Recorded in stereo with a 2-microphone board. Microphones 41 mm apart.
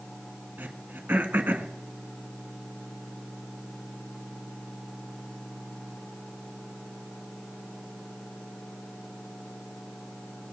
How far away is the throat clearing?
About 1.1 m.